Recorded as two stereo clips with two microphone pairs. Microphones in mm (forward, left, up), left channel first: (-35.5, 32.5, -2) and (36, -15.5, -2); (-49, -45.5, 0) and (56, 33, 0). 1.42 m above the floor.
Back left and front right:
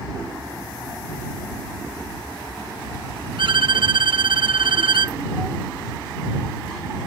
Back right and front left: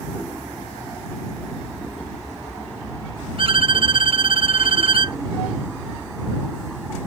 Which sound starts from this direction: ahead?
A violin, at 3.4 s.